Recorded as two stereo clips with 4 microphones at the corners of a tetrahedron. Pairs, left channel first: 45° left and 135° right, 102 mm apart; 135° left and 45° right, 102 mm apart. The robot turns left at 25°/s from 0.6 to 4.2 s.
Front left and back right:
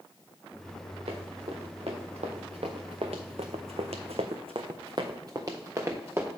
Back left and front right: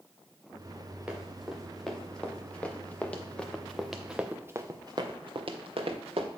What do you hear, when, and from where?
1.1 s running footsteps: 125° right, 2.5 m; by 6.3 s 65° right, 1.8 m